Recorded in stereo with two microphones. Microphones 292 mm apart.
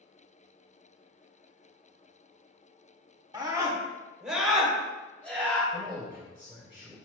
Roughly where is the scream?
Centre.